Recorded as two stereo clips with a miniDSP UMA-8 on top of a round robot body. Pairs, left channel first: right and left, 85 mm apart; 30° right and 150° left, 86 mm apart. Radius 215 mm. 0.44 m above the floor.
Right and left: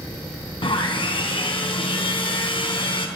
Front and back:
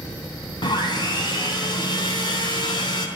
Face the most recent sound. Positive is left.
turn(degrees=-65)